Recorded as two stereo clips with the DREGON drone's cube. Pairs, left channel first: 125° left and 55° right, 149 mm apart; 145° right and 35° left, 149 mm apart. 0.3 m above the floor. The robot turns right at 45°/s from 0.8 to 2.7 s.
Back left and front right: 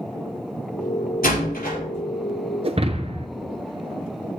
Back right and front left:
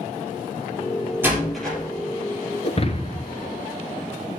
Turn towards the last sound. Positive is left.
turn(degrees=-100)